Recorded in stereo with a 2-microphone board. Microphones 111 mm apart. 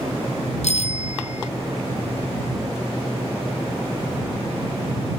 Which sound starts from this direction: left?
A bicycle bell, at 0.6 s.